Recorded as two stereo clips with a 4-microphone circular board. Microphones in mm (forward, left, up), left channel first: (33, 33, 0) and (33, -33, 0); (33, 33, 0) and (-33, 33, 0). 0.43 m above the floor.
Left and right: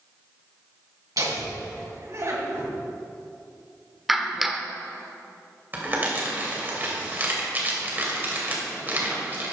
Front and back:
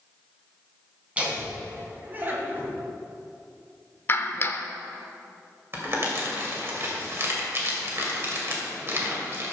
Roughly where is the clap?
Ahead.